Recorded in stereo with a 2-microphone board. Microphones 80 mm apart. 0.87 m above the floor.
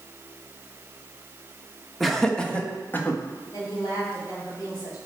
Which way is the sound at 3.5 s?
50° left (ahead or behind).